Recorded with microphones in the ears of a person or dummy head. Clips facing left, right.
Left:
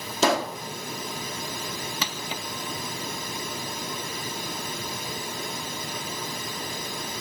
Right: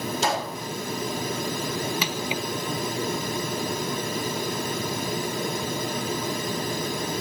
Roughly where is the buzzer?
No buzzer in this recording.